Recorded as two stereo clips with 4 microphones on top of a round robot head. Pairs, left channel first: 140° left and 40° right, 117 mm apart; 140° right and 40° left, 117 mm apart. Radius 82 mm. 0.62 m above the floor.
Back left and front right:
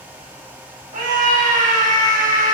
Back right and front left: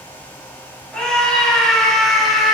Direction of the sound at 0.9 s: 55° right.